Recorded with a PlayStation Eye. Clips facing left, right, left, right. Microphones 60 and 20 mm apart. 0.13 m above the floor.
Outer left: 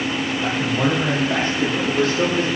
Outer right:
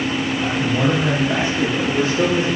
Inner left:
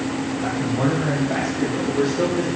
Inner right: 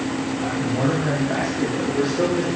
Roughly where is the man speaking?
Centre.